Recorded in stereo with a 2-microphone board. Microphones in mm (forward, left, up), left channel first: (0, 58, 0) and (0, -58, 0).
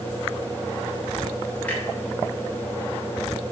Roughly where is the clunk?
Centre.